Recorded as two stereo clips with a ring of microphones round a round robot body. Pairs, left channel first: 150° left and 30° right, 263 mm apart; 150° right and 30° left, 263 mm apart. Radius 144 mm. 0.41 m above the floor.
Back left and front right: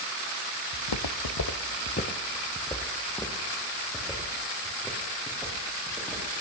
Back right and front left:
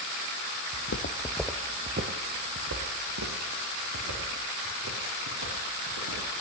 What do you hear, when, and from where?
0.7 s footsteps: 170° left, 1.2 m; by 6.2 s 55° left, 6.5 m